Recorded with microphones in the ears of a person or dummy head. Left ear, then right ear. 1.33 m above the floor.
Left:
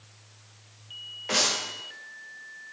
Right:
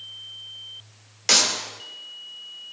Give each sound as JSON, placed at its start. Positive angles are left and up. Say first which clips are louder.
{"t": 1.3, "sound": "a clap", "louder": "right 6 dB", "side_deg": -80, "distance_m": 3.0}